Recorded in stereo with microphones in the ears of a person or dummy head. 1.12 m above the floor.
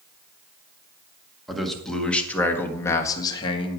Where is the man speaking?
5° left (ahead or behind), 2 m; by 3.8 s 35° left (ahead or behind), 1.5 m.